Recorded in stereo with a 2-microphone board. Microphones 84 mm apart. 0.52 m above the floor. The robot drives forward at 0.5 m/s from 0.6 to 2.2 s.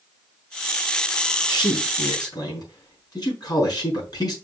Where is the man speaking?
60° left (ahead or behind), 4.5 m; by 4.3 s 55° left (ahead or behind), 5 m.